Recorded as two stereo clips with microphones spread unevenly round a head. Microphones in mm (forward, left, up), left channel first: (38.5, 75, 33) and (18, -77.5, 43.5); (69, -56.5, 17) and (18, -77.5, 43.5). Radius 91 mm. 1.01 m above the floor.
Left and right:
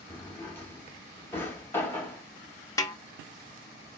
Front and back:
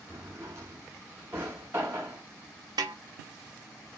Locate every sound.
0.1 s a drawer: 160° left, 0.6 m
2.8 s a snare drum: 150° left, 0.5 m